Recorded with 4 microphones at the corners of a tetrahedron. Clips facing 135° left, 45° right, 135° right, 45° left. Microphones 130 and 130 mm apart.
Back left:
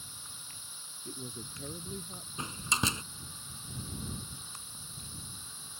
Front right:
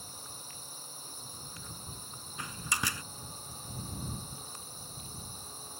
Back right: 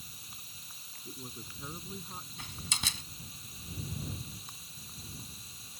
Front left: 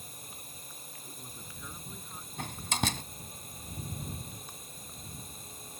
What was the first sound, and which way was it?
A drone, 5° left.